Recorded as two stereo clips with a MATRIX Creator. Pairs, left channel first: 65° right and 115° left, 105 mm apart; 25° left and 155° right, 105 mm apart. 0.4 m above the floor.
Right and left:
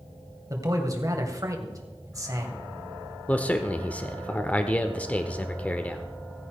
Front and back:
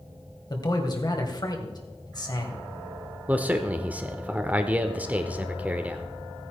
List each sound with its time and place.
0.5 s a man speaking: 60° left, 2 m
3.3 s a man speaking: 115° right, 0.8 m